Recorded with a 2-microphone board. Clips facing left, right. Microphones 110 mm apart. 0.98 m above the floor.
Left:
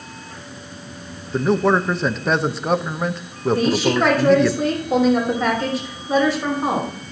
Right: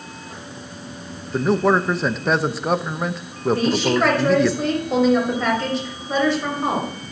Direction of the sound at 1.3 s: Centre (ahead or behind).